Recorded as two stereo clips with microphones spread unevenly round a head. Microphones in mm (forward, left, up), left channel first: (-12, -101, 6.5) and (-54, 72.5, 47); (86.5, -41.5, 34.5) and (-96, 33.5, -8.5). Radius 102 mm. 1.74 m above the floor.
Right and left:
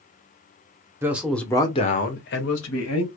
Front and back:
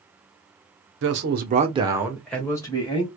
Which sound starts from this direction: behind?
A man speaking, at 1.0 s.